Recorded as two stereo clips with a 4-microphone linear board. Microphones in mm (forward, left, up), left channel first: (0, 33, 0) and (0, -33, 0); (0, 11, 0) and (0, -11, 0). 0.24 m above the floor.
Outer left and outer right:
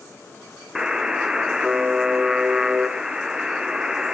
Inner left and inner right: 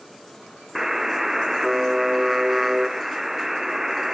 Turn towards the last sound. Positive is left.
turn(degrees=-10)  # may be behind; listen again after turning